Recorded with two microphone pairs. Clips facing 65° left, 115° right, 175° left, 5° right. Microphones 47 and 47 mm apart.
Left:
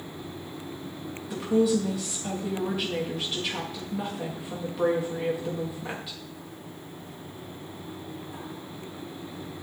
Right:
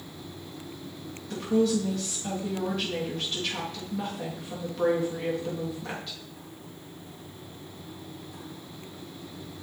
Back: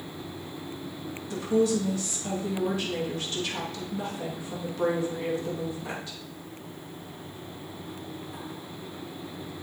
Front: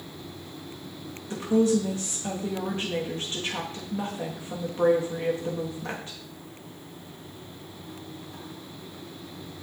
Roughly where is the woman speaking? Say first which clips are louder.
Left 1 dB, front 2 dB; ahead.